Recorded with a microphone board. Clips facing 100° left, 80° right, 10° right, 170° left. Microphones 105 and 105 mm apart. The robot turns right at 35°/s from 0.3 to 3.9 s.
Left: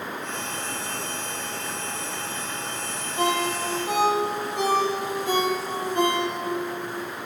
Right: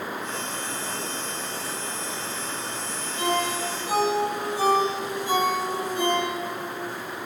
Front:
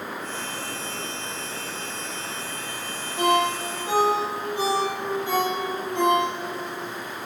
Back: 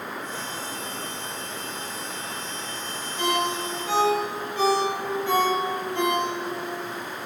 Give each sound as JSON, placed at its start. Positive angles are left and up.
{"t": 3.2, "sound": "a ringtone", "azimuth_deg": 40, "distance_m": 6.0}